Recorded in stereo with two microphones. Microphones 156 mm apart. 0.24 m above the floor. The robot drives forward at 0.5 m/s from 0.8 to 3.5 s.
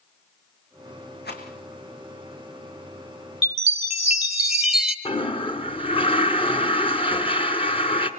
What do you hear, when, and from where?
1.2 s a rattle: 85° left, 4 m
3.4 s a chime: centre (ahead or behind), 1.6 m
5.0 s a toilet flushing: 35° left (ahead or behind), 2 m